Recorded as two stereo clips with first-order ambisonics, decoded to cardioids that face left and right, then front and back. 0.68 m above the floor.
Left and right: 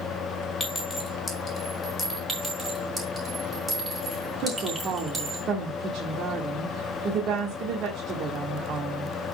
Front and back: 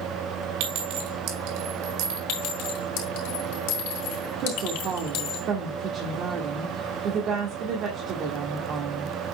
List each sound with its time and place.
0.6 s a clink: 165° left, 2.5 m
2.3 s a clink: 10° right, 3.5 m
4.4 s a woman speaking: 135° right, 1.5 m